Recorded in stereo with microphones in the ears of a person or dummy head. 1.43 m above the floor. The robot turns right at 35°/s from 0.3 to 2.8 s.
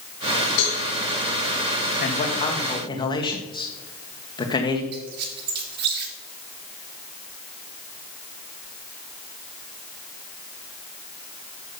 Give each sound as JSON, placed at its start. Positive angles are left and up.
{"t": 0.6, "sound": "a cowbell", "side_deg": 70, "distance_m": 4.0}
{"t": 2.0, "sound": "a man speaking", "side_deg": 55, "distance_m": 1.8}
{"t": 4.9, "sound": "a squeak", "side_deg": -55, "distance_m": 2.0}